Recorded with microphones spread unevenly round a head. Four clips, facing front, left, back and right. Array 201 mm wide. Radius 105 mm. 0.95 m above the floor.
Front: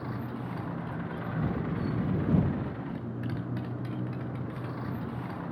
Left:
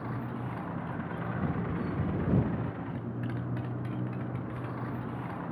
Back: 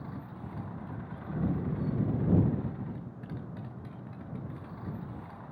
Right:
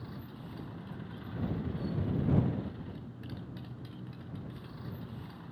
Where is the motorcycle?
40° left.